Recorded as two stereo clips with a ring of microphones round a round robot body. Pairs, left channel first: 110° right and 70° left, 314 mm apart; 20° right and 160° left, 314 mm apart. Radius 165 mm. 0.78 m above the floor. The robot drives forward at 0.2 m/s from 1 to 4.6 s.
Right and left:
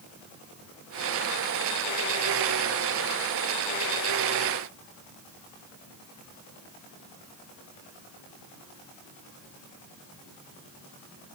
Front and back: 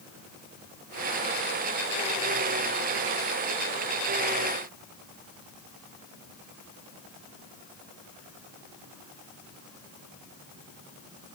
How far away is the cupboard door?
No cupboard door in this recording.